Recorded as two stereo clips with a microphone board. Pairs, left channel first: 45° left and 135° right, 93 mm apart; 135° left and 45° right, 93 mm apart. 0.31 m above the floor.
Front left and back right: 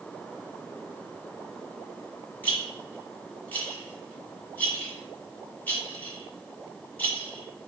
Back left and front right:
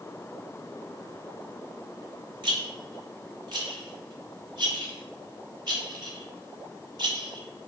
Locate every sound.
2.4 s a rattle: 25° right, 1.7 m